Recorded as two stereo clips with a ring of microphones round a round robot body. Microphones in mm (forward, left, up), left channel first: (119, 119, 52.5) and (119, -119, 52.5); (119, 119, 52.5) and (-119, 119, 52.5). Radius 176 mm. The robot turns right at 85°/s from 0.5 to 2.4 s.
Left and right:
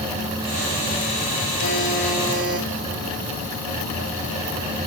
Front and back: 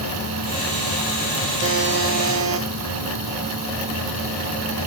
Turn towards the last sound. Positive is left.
turn(degrees=-155)